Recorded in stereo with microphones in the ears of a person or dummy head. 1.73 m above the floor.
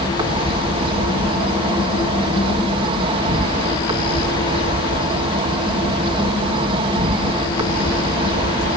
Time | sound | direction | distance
0.0 | an insect | 35° right (ahead or behind) | ?